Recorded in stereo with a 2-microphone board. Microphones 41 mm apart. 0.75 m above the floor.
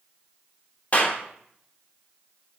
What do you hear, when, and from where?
0.9 s a clap: 40° left (ahead or behind), 1.5 m